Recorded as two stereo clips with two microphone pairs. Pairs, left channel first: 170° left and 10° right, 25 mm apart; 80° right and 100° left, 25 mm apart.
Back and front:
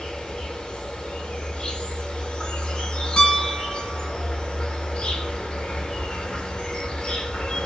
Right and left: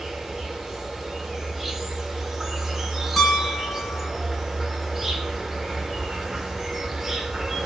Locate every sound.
0.0 s an insect: 175° left, 0.7 m
3.2 s a piano: 155° right, 2.5 m